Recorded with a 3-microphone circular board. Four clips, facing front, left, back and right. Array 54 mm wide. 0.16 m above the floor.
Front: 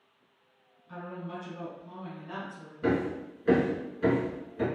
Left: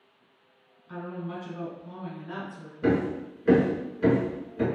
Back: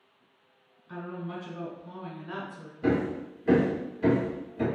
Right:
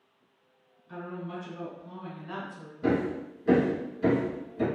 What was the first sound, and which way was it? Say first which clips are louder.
A woman speaking: left 2 dB, back 2 dB; 115° left.